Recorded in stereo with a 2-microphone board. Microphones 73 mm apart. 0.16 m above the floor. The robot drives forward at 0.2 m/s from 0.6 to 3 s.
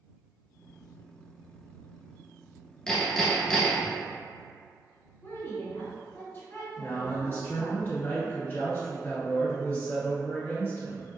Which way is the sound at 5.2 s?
35° left (ahead or behind).